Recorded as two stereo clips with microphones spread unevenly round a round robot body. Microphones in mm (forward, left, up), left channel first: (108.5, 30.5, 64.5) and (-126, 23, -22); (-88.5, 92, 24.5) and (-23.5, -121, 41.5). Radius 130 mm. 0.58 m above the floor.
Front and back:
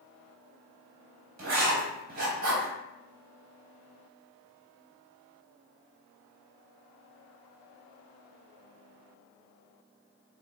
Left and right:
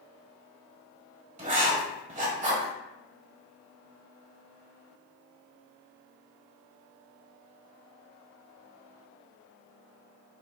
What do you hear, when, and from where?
1.4 s writing: 130° right, 3 m